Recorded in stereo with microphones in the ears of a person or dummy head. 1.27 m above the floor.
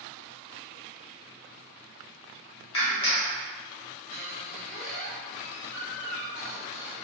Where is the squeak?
40° right (ahead or behind), 0.9 m.